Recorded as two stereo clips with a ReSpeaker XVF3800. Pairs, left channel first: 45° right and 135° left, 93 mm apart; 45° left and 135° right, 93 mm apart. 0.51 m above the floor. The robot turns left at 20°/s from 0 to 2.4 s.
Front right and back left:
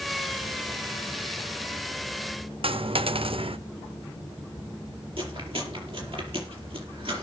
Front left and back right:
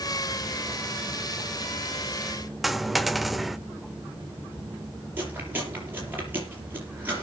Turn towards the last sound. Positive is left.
turn(degrees=155)